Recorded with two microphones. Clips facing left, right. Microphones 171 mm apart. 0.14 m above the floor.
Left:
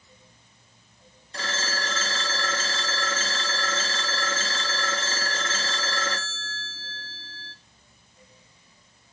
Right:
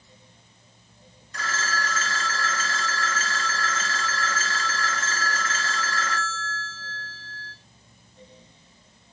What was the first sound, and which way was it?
A phone ringing, 30° left (ahead or behind).